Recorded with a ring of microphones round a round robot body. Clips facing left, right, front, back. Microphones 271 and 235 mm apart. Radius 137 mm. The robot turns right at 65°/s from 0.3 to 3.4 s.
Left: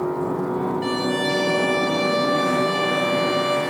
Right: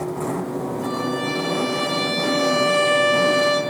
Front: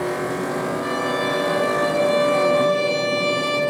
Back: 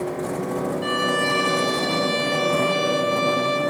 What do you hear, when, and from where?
0.8 s a violin: 130° left, 1.6 m; by 3.6 s 65° right, 1.6 m